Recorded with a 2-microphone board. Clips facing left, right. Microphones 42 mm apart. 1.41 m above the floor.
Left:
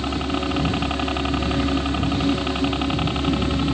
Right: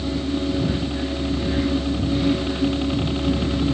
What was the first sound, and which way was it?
A helicopter, 60° left (ahead or behind).